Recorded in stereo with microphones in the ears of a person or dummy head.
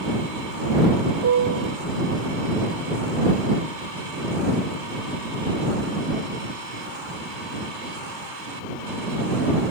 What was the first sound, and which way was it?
A piano, 75° right (ahead or behind).